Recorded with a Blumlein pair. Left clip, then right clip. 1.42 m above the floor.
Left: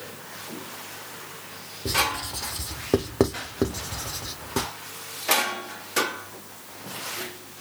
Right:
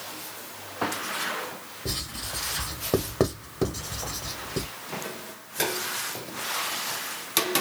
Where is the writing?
5° left, 0.8 m.